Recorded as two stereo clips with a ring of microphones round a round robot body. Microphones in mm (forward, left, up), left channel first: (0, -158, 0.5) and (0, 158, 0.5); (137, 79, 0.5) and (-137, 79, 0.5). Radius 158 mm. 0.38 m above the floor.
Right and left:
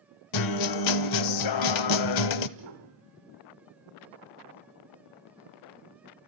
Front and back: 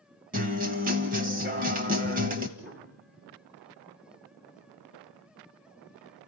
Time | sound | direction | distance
0.3 | a guitar | 115° right | 0.9 m
2.6 | a piano | 130° left | 2.5 m